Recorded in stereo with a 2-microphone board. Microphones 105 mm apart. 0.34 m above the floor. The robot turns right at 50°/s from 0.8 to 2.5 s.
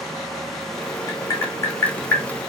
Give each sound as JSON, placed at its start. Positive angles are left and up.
{"t": 1.1, "sound": "tapping", "side_deg": 30, "distance_m": 1.6}